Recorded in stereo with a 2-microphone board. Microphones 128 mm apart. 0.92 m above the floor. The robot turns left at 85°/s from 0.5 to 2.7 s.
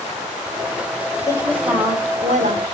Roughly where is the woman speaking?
Ahead left.